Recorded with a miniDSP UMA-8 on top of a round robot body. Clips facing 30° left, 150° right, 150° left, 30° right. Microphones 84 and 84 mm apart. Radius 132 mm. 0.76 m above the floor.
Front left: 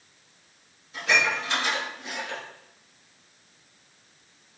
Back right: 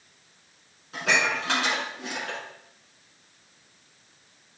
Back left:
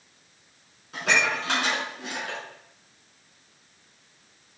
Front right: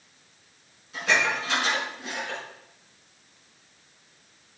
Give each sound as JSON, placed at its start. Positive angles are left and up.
{"t": 0.9, "sound": "dishes clattering", "azimuth_deg": -175, "distance_m": 6.0}